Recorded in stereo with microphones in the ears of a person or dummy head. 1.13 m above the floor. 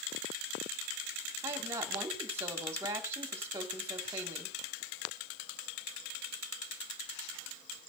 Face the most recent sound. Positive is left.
turn(degrees=-20)  # may be behind; listen again after turning